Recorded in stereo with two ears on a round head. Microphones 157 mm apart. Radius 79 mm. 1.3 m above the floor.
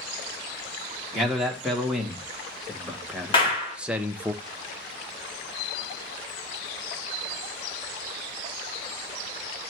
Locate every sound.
1.1 s a man speaking: centre (ahead or behind), 2.5 m; by 4.3 s 10° right (ahead or behind), 0.8 m
3.3 s a clap: 30° left (ahead or behind), 3.5 m